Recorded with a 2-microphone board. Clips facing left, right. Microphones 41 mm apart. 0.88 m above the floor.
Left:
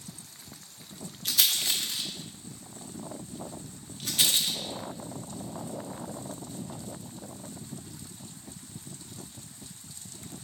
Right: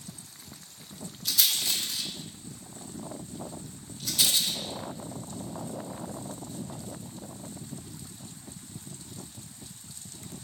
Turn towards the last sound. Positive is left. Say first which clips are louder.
# left 1 dB
turn(degrees=50)  # may be behind; listen again after turning